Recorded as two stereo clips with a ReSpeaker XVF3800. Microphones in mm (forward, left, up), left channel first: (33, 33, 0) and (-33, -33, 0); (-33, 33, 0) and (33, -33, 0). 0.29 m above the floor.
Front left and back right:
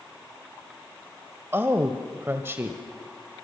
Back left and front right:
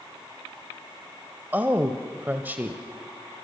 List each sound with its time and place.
1.5 s a woman speaking: 95° right, 1.1 m